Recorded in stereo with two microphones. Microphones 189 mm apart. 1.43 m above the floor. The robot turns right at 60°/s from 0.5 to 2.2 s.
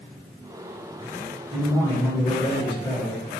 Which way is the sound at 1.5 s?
25° right.